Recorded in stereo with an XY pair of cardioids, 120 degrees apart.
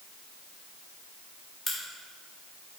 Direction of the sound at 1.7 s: 15° left.